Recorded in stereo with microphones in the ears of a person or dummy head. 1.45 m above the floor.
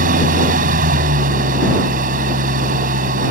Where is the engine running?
50° right (ahead or behind).